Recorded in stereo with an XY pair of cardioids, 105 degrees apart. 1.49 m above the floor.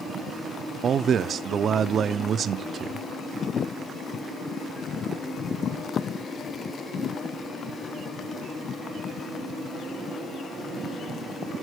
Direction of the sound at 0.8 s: 50° right.